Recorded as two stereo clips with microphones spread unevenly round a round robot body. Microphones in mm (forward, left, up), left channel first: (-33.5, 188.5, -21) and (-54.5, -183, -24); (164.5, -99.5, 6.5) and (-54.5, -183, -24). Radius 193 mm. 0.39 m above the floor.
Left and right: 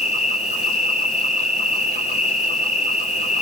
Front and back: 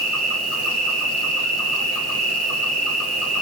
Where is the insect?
160° left, 0.8 m.